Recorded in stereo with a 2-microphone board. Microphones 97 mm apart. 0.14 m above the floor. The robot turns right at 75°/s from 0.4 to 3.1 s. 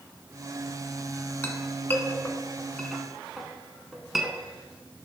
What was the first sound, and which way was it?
A clink, 20° left (ahead or behind).